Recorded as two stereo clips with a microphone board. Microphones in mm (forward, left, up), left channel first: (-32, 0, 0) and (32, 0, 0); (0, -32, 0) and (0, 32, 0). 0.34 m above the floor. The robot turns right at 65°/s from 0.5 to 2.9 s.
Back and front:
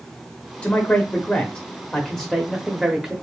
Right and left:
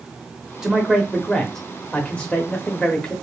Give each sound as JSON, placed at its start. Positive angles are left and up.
{"t": 0.6, "sound": "a man speaking", "azimuth_deg": 155, "distance_m": 0.8}